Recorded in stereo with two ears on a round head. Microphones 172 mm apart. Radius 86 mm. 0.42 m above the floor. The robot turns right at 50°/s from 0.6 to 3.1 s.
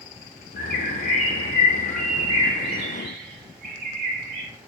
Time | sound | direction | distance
0.6 | a bird | 110° left | 1.0 m